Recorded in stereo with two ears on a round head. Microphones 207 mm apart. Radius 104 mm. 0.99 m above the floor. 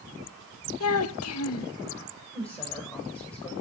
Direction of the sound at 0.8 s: 65° left (ahead or behind).